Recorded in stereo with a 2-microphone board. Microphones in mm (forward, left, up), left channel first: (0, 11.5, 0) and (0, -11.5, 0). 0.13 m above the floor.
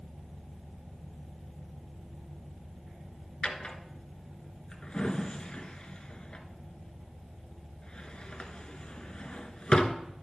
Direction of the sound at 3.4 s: 45° left (ahead or behind).